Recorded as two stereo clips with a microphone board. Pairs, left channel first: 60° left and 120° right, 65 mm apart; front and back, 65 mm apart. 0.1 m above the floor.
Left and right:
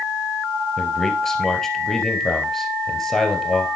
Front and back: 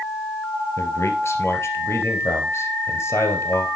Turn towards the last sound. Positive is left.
turn(degrees=-20)